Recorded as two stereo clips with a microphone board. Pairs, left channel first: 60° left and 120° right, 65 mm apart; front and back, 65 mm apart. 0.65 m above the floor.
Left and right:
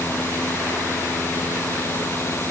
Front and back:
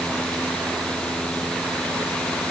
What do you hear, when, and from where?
Only background noise.